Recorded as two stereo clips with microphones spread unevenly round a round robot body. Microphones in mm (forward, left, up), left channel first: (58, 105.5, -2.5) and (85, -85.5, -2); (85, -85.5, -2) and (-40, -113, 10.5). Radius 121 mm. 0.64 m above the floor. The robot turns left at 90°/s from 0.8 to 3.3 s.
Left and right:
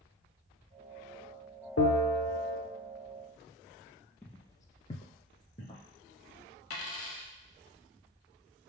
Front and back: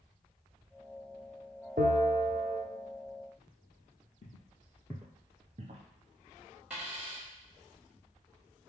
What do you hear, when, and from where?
1.8 s a bell: 135° left, 0.6 m; by 2.6 s 60° left, 0.6 m
4.2 s footsteps: 15° left, 1.0 m; by 5.8 s 165° left, 1.2 m
6.7 s a dropped coin: 105° left, 1.0 m